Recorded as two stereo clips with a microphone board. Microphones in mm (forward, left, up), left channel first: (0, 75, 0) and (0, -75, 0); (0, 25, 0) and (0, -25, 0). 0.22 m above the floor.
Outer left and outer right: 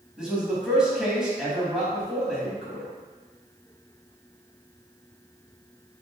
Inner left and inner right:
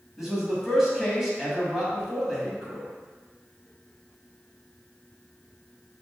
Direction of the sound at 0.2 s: 5° right (ahead or behind).